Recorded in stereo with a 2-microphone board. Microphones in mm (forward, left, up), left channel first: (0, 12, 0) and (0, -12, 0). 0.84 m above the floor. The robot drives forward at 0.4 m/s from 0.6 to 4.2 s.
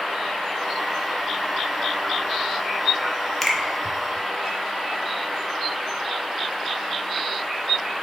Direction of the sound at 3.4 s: 5° left (ahead or behind).